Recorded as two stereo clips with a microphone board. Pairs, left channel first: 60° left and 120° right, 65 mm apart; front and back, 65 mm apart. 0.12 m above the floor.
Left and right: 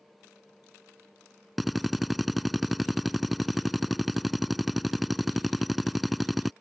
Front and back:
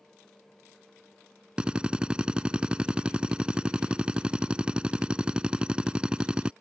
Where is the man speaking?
No man speaking in this recording.